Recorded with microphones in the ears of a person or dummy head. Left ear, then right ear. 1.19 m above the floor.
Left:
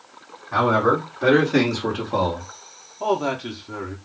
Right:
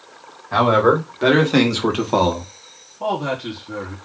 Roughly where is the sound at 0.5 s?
Centre.